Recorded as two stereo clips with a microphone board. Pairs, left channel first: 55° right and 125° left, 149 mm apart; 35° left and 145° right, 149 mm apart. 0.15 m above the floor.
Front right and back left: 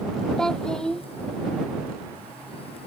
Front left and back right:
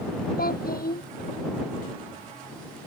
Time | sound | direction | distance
0.4 | a child speaking | 30° left | ?